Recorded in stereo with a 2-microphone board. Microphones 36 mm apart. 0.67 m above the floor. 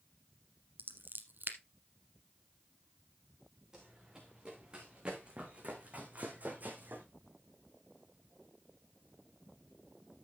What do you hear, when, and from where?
0.8 s scissors: 60° right (ahead or behind), 1.3 m
3.7 s running footsteps: 20° right (ahead or behind), 3.5 m; by 7.0 s 55° right (ahead or behind), 2.5 m